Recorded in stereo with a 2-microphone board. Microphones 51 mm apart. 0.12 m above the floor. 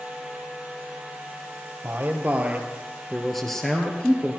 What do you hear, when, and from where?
1.8 s a man speaking: 40° right (ahead or behind), 3 m; by 4.4 s 30° left (ahead or behind), 3 m